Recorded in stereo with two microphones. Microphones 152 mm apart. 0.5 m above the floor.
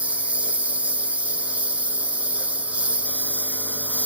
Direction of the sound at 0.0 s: 10° right (ahead or behind).